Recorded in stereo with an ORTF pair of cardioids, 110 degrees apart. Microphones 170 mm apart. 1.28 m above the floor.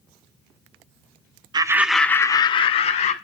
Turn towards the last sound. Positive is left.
turn(degrees=45)